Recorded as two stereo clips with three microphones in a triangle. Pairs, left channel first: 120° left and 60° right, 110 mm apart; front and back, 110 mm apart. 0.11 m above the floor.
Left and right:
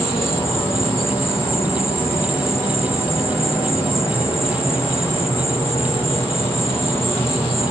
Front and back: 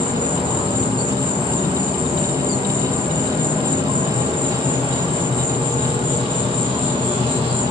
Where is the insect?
175° left, 3.5 m.